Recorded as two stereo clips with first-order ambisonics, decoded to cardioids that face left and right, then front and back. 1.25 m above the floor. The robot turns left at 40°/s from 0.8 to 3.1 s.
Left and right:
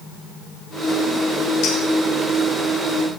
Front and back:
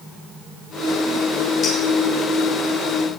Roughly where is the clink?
Ahead left.